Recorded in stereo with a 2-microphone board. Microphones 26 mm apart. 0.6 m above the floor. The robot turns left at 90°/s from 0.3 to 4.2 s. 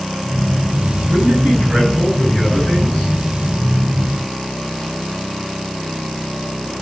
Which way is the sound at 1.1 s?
55° right.